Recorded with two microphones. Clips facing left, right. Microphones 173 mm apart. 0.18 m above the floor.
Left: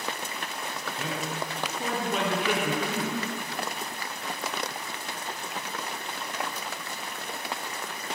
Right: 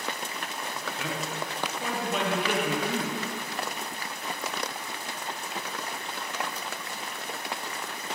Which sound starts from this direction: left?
A man speaking, at 1.0 s.